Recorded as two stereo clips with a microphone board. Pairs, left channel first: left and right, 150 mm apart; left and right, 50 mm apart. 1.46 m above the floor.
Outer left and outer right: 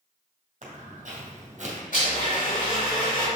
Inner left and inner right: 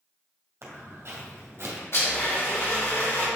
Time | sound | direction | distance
0.6 | footsteps | 55° right (ahead or behind) | 2.5 m
1.9 | a blender | 60° left (ahead or behind) | 3 m